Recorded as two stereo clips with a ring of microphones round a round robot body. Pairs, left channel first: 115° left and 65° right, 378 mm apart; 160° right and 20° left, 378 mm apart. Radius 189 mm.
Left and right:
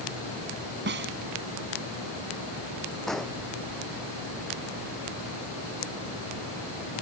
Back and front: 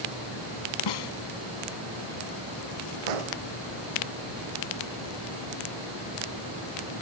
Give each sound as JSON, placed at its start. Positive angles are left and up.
{"t": 0.9, "sound": "a snare drum", "azimuth_deg": -130}
{"t": 3.1, "sound": "an explosion", "azimuth_deg": 25}